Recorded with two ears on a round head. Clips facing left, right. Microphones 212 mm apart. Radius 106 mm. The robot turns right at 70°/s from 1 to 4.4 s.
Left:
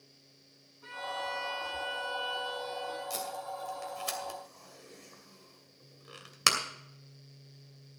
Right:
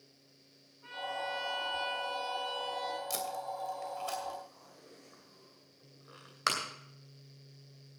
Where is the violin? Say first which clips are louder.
Even; 120° left, 6 m; by 3.0 s 100° right, 6 m.